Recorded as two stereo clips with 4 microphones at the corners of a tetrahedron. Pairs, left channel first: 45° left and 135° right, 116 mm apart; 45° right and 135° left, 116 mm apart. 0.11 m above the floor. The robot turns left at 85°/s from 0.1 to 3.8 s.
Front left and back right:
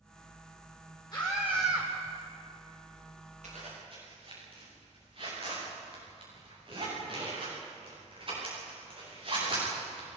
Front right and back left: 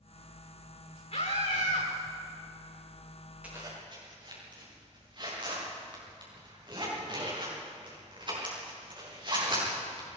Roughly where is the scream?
Ahead.